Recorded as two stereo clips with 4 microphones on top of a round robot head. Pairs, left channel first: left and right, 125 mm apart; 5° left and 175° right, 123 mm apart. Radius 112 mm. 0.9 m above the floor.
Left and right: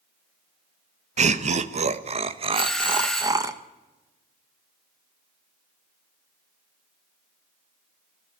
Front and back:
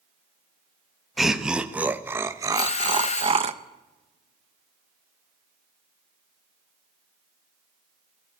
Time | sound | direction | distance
1.2 | laughter | 90° right | 1.5 m
2.5 | a doorbell | 5° left | 1.7 m